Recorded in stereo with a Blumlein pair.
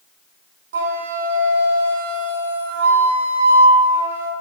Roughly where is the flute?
Ahead right.